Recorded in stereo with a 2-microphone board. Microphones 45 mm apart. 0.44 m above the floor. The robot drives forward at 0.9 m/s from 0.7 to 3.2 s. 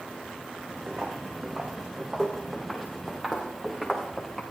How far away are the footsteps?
About 1.8 m.